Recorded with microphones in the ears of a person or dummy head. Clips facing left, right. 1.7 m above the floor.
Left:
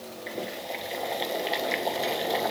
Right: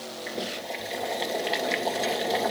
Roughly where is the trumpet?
I don't hear a trumpet.